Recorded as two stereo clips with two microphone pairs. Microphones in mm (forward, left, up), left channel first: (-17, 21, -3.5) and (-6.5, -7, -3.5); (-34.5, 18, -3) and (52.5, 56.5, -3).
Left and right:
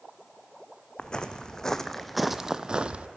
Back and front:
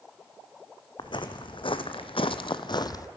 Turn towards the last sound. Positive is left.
turn(degrees=-110)